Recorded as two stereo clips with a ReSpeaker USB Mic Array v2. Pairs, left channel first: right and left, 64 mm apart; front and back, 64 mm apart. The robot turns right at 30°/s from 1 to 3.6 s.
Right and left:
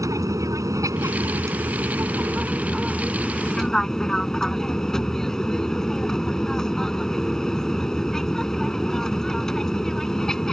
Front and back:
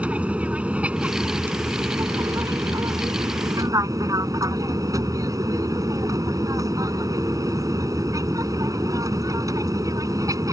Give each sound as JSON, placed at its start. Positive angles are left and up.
{"t": 0.0, "sound": "an aircraft", "azimuth_deg": 110}